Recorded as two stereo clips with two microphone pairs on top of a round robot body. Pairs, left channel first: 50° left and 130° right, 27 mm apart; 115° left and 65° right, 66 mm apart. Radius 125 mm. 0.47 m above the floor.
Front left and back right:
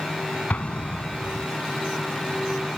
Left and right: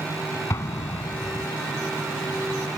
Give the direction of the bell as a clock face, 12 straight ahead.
No bell in this recording.